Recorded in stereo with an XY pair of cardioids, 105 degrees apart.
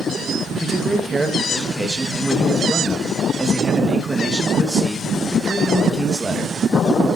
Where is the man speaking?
15° right, 3 m.